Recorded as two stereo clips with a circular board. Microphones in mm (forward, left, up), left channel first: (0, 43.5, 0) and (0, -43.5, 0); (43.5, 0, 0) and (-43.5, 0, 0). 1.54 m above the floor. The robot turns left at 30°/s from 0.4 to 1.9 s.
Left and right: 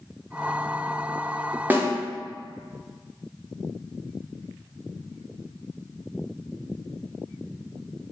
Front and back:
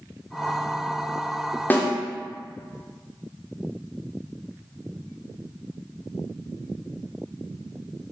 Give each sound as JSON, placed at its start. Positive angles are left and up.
{"t": 1.7, "sound": "a snare drum", "azimuth_deg": -45, "distance_m": 0.6}